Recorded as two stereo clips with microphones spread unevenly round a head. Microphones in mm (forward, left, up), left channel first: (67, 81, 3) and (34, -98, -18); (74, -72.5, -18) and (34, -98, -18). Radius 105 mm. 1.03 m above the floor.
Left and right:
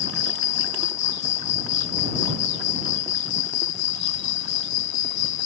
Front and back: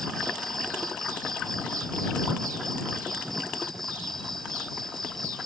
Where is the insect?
120° left.